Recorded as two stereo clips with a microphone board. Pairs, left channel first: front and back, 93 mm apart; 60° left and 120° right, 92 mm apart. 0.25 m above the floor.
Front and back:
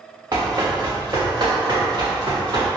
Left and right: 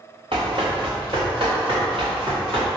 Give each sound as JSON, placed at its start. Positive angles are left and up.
{"t": 0.3, "sound": "running footsteps", "azimuth_deg": -135, "distance_m": 1.5}